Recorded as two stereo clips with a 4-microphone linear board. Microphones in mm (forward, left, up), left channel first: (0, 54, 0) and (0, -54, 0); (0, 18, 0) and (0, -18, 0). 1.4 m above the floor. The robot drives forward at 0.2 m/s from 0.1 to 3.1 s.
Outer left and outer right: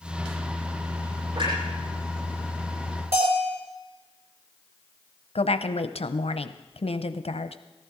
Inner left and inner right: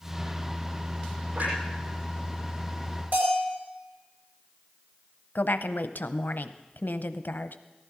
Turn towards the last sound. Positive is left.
turn(degrees=75)  # may be behind; listen again after turning